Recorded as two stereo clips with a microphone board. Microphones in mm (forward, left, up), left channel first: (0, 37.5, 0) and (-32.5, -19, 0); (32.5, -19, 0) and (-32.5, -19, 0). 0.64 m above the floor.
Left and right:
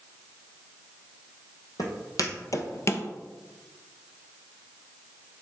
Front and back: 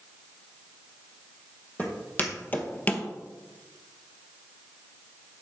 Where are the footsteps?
60° left, 1.6 m; by 3.1 s 45° left, 0.7 m.